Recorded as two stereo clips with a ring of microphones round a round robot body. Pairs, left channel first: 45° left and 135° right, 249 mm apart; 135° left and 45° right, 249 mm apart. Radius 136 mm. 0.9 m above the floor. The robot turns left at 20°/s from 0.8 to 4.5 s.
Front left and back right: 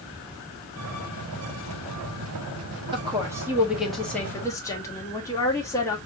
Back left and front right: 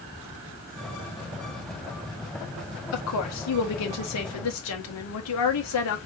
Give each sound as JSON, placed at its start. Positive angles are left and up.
{"t": 2.9, "sound": "a woman speaking", "azimuth_deg": 155, "distance_m": 1.2}